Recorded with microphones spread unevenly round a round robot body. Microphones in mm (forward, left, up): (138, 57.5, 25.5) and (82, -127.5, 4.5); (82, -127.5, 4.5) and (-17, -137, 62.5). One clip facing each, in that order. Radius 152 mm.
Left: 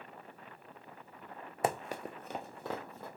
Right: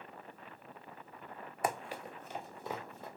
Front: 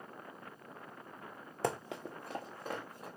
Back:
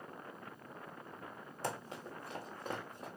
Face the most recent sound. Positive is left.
turn(degrees=125)